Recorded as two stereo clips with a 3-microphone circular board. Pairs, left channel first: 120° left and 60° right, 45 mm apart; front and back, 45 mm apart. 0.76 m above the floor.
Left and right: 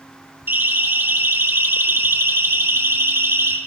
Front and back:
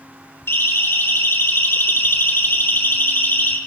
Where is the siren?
25° right, 6 m; by 3.6 s 45° right, 5 m.